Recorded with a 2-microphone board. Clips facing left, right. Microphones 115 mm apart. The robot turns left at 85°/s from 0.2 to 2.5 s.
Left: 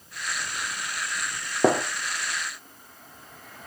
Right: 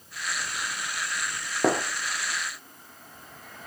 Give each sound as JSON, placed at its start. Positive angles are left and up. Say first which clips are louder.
{"t": 1.6, "sound": "a gunshot", "louder": "left 3 dB", "side_deg": 15, "distance_m": 1.8}